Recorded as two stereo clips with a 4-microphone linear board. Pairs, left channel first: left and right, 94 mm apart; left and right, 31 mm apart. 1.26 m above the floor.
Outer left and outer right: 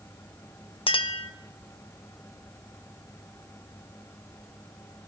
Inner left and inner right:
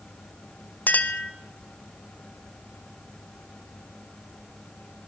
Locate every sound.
0.9 s a clink: 65° left (ahead or behind), 0.5 m